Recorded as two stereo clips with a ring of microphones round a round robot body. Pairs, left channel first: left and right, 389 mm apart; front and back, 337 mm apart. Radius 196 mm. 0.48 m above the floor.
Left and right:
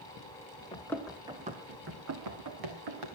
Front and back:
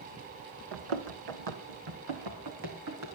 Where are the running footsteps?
165° left, 2.0 m; by 3.1 s 120° right, 3 m.